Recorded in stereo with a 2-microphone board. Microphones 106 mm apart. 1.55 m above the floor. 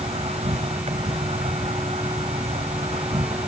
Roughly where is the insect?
Right.